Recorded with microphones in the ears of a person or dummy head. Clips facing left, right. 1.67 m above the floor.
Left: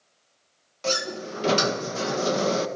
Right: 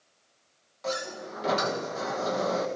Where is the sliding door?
40° left (ahead or behind), 1.4 m.